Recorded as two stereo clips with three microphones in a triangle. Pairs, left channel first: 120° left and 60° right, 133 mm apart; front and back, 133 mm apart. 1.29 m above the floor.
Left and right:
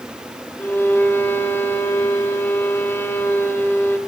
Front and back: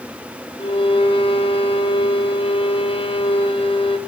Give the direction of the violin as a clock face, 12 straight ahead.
10 o'clock.